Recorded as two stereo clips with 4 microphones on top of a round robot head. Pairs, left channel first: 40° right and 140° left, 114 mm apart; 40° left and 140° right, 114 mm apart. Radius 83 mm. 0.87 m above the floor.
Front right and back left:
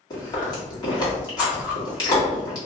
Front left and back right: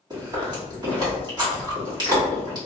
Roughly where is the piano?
I don't hear a piano.